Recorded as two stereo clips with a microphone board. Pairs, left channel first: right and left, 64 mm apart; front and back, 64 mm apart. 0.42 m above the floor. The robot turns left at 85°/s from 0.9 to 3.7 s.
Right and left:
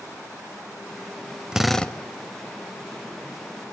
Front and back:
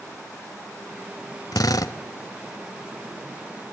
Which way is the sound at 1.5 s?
10° left.